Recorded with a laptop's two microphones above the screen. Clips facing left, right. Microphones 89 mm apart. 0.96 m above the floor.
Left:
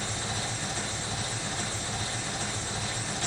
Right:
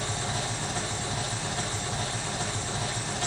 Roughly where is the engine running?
Right.